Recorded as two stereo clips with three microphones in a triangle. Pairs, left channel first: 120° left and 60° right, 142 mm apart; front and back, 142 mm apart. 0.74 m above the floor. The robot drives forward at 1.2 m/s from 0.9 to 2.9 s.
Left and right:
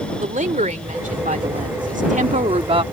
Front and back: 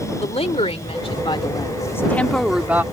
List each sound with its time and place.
0.2 s a woman speaking: 40° right; by 2.8 s 105° right